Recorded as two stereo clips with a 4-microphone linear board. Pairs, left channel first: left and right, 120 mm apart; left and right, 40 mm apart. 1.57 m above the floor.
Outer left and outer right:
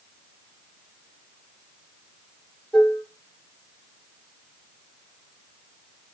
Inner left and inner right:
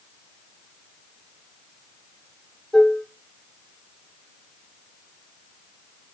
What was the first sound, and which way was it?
Dishes clattering, 5° left (ahead or behind).